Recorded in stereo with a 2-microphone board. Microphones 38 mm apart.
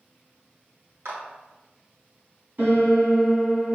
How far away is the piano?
About 2 m.